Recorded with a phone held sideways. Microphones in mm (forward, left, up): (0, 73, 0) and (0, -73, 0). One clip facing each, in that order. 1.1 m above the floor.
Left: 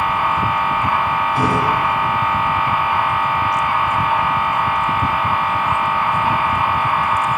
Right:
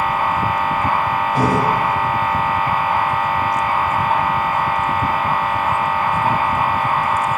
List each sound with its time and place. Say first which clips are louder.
0.0 s a machine running: even; 40° right (ahead or behind), 1.1 m